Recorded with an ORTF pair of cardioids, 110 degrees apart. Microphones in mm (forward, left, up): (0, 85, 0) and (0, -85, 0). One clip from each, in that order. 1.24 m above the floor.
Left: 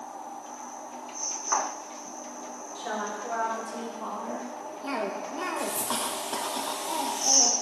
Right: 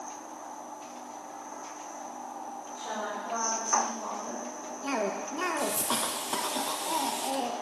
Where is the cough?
10° right, 1.0 m.